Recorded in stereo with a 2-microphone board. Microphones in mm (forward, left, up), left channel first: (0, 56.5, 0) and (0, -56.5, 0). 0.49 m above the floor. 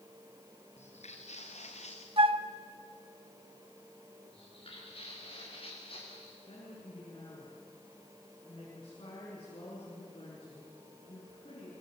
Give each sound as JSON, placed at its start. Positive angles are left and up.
{"t": 0.8, "sound": "footsteps", "side_deg": 70, "distance_m": 3.5}
{"t": 2.2, "sound": "a flute", "side_deg": -50, "distance_m": 1.0}
{"t": 4.3, "sound": "footsteps", "side_deg": 55, "distance_m": 9.0}
{"t": 6.5, "sound": "a woman speaking", "side_deg": 45, "distance_m": 7.0}